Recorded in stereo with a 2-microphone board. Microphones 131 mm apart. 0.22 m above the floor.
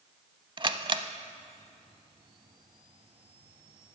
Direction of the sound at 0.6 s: 40° right (ahead or behind).